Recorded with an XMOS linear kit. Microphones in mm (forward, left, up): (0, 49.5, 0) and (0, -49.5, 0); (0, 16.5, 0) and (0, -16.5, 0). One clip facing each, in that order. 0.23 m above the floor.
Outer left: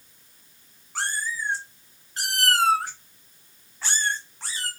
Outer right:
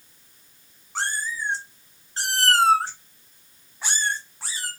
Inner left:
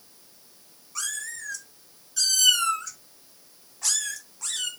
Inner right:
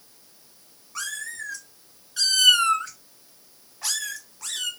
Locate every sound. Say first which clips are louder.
0.9 s a cat meowing: outer right 1 dB, inner right 2 dB; 25° right (ahead or behind), 1.2 m; by 4.7 s 5° right (ahead or behind), 1.1 m